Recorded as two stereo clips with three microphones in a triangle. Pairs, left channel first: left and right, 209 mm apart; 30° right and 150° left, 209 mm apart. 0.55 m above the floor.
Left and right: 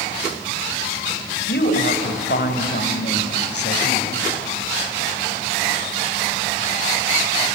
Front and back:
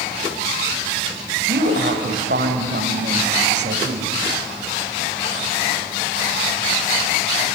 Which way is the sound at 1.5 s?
120° left.